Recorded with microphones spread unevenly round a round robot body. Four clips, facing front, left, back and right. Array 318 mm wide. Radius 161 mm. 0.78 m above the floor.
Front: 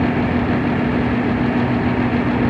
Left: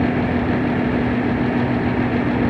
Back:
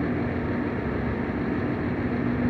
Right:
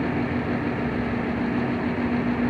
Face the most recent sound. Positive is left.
No sound to turn to.